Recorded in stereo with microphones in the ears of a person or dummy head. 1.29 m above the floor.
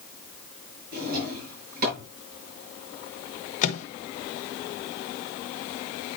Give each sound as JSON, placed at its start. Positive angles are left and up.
{"t": 0.9, "sound": "a drawer", "side_deg": -45, "distance_m": 5.0}
{"t": 3.6, "sound": "a microwave", "side_deg": 50, "distance_m": 1.3}